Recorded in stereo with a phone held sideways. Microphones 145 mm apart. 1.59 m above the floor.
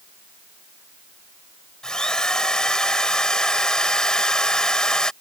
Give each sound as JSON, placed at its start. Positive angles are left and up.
{"t": 1.8, "sound": "a drill", "side_deg": 5}